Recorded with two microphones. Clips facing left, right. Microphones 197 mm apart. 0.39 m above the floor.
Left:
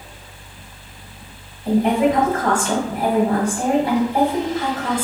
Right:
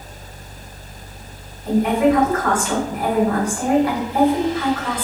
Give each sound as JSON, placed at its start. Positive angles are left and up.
{"t": 1.6, "sound": "a woman speaking", "side_deg": 30, "distance_m": 1.8}